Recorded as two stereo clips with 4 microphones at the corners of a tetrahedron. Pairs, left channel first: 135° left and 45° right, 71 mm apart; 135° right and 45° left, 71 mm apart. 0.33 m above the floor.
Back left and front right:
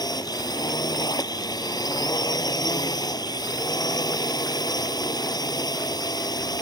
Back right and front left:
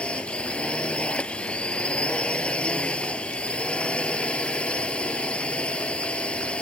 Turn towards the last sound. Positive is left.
turn(degrees=155)